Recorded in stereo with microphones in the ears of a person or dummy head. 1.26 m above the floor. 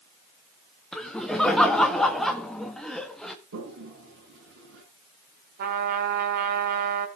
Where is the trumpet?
50° right (ahead or behind), 1.5 m.